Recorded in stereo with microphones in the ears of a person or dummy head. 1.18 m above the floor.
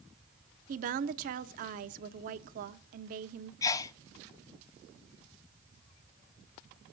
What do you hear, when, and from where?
0.7 s a woman speaking: 45° right (ahead or behind), 0.8 m
3.6 s a sneeze: 20° left (ahead or behind), 0.6 m